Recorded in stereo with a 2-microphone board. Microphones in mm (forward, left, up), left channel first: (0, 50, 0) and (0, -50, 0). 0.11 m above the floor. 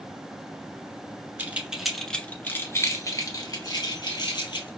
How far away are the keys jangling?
About 0.9 m.